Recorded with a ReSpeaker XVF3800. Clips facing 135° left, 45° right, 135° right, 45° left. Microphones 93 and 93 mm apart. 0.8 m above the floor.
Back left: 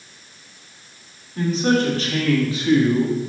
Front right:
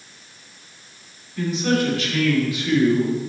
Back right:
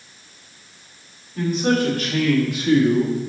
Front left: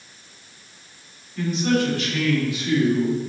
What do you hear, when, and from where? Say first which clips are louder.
1.4 s a man speaking: back left 2 dB, back right 2 dB; straight behind, 2.5 m; by 3.2 s 160° right, 1.1 m